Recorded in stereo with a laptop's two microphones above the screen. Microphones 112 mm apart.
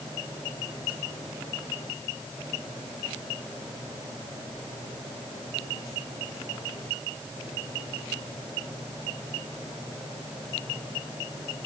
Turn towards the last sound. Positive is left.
No sound to turn to.